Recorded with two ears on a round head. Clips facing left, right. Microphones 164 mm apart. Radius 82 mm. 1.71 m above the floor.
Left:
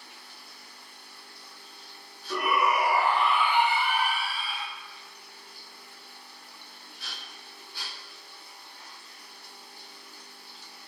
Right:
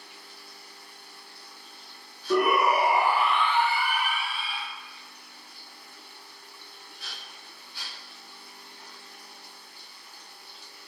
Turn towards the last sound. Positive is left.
turn(degrees=35)  # may be behind; listen again after turning